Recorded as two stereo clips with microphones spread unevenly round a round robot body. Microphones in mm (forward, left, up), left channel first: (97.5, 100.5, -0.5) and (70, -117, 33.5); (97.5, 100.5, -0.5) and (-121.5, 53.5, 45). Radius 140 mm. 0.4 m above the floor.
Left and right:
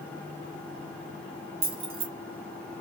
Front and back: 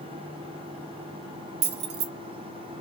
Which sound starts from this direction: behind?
Keys jangling, at 1.6 s.